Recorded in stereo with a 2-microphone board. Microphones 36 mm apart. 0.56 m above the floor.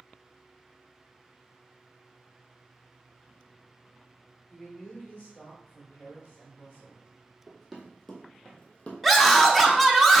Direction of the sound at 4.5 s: 40° left (ahead or behind).